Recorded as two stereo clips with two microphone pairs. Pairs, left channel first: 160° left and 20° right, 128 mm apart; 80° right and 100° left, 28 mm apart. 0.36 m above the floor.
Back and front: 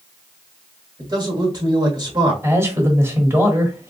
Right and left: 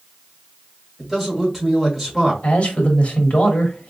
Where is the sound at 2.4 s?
85° right, 1.1 m.